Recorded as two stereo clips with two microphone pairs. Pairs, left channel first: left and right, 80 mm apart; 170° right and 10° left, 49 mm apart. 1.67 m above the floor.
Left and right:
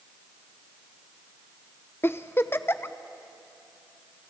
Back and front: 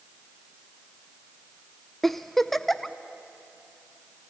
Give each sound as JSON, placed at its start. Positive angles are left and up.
{"t": 2.0, "sound": "a giggle", "azimuth_deg": 110, "distance_m": 0.6}